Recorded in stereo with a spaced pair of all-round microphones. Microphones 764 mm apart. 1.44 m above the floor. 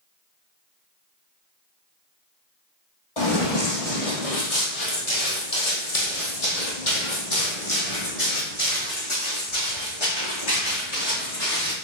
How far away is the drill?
I don't hear a drill.